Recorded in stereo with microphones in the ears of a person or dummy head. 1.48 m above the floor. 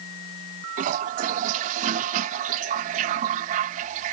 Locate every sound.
0.8 s a toilet flushing: 45° right (ahead or behind)